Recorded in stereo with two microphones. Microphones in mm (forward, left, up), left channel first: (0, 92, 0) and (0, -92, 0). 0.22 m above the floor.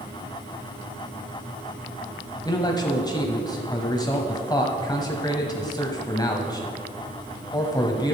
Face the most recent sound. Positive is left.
turn(degrees=20)  # may be behind; listen again after turning